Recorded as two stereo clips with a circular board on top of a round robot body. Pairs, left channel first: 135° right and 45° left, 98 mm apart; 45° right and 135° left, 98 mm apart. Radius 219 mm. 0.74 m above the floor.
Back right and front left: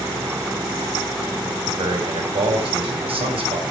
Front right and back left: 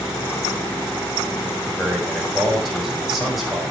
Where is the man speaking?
45° left, 4.5 m.